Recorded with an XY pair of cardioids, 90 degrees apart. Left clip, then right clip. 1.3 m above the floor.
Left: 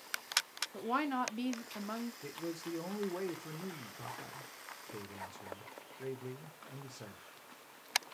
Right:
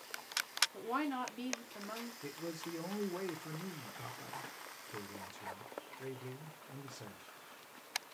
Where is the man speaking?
15° left, 0.6 m.